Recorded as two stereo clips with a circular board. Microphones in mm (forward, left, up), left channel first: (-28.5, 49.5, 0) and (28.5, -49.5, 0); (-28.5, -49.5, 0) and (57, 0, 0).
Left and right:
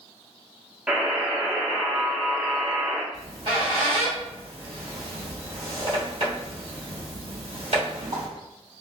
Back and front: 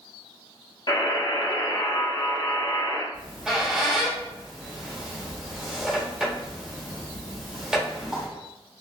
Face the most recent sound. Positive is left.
turn(degrees=-50)